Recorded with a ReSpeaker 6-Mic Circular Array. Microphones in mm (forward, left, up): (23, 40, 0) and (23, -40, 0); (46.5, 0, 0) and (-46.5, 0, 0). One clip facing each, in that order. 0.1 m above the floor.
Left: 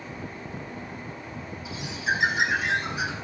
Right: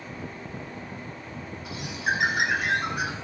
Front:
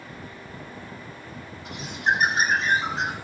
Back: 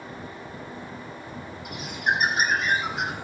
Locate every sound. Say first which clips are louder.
1.6 s a bird: even, front 2 dB; 60° right, 2.0 m